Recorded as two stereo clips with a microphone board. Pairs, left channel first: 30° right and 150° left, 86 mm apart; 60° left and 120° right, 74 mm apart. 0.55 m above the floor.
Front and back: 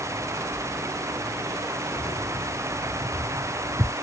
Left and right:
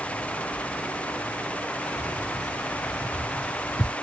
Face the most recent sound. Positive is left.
turn(degrees=95)